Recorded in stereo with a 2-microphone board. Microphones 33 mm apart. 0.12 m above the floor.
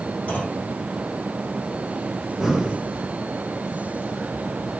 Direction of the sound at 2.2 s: 5° right (ahead or behind).